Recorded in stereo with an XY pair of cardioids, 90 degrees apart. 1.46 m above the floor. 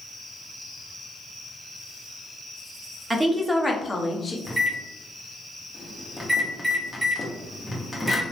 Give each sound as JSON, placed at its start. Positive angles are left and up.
{"t": 3.1, "sound": "a woman speaking", "azimuth_deg": -25, "distance_m": 0.7}
{"t": 4.5, "sound": "a microwave", "azimuth_deg": 0, "distance_m": 0.9}